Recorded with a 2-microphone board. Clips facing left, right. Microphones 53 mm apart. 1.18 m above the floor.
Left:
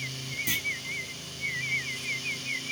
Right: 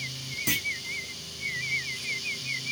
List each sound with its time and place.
0.5 s a clunk: 70° right (ahead or behind), 0.7 m